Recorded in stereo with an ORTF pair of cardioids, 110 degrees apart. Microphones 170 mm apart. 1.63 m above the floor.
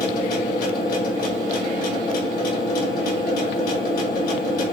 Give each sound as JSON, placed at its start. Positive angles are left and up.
{"t": 0.0, "sound": "a machine running", "azimuth_deg": 60, "distance_m": 1.6}